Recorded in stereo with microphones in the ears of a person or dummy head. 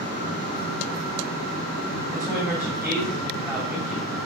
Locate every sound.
2.1 s a woman speaking: 5° right (ahead or behind), 2.5 m